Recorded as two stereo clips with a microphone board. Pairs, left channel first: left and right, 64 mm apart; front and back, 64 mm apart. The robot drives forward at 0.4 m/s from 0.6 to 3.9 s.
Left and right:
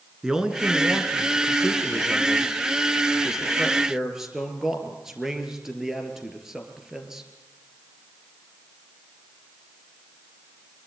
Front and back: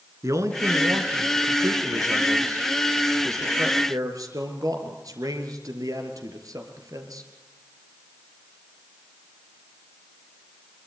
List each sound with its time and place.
0.2 s a man speaking: 170° right, 2 m; by 7.3 s 175° right, 3.5 m